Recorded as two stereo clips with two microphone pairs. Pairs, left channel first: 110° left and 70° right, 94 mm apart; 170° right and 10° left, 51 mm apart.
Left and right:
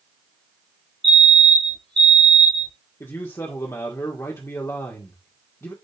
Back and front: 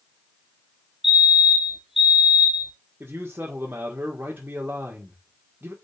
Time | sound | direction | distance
1.0 | a fire alarm | 75° right | 2.5 m
3.0 | a man speaking | 55° left | 1.9 m